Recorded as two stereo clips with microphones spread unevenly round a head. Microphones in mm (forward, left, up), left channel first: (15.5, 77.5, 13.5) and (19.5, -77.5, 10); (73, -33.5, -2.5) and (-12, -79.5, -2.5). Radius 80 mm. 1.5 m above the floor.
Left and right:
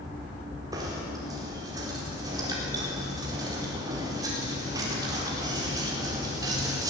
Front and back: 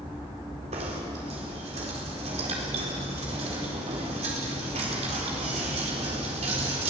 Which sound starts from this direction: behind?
Knocking, at 0.7 s.